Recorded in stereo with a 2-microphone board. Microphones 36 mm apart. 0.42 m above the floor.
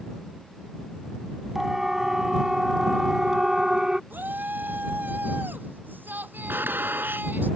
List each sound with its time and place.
1.6 s a siren: 10° right (ahead or behind); by 4.0 s 20° right (ahead or behind)
4.1 s a shout: 60° right (ahead or behind)
6.5 s a gunshot: 75° right (ahead or behind)